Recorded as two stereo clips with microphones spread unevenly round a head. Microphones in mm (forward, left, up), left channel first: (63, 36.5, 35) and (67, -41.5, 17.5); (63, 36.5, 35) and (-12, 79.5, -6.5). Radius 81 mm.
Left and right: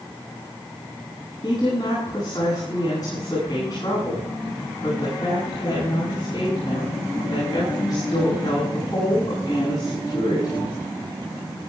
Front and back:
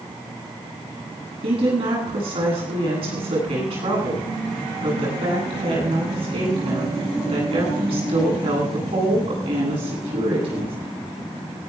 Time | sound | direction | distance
1.4 | a woman speaking | 155° left | 10 m